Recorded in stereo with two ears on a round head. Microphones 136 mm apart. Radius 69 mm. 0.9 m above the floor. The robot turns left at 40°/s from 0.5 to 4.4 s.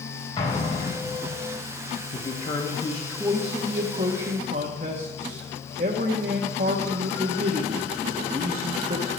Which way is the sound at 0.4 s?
150° left.